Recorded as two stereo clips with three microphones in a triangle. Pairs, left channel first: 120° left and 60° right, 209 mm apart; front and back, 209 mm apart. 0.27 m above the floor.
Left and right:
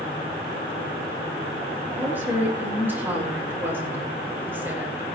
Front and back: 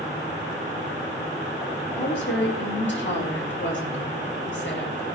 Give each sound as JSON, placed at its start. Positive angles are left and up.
{"t": 1.9, "sound": "a woman speaking", "azimuth_deg": 20, "distance_m": 6.0}